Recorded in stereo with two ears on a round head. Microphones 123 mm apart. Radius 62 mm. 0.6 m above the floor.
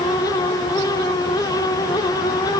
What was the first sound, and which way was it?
Only background noise.